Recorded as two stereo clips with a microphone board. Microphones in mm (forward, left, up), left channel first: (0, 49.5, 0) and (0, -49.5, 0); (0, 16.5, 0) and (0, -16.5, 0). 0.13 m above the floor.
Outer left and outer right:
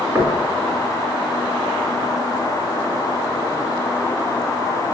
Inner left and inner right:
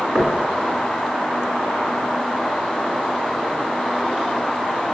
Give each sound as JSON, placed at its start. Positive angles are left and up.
{"t": 0.1, "sound": "knocking", "side_deg": -25, "distance_m": 1.2}